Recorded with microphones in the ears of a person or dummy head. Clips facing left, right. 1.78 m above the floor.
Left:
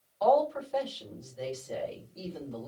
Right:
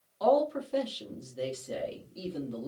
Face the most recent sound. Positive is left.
turn(degrees=-45)  # may be behind; listen again after turning